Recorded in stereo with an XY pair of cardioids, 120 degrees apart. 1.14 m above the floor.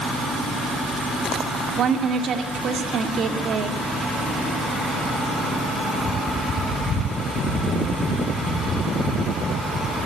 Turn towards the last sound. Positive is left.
turn(degrees=-50)